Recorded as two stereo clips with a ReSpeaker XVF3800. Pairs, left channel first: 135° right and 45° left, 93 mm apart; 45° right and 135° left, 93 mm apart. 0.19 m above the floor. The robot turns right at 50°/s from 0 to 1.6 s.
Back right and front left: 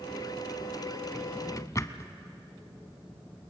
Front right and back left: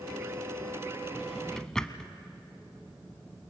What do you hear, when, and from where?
1.1 s a drawer: 145° right, 1.0 m; by 2.1 s 125° right, 1.0 m